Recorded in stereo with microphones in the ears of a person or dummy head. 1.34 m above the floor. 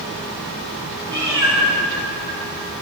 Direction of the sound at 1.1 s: 20° right (ahead or behind).